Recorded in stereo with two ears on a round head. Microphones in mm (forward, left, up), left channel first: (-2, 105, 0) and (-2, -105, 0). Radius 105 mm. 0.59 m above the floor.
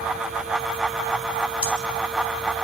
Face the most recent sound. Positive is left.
turn(degrees=25)  # may be behind; listen again after turning